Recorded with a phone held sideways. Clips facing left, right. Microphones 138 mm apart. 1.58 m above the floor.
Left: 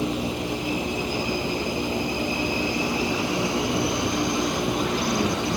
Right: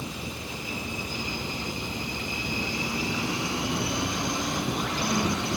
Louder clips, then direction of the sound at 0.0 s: Left 11 dB; 85° left.